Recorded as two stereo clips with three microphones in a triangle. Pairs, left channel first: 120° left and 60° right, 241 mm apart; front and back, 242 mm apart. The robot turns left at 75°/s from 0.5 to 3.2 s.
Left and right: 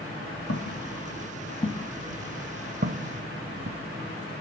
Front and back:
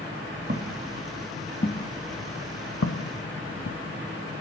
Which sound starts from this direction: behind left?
Footsteps, at 0.5 s.